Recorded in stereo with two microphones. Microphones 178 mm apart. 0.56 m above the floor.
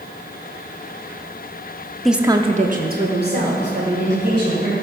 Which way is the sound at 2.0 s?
Centre (ahead or behind).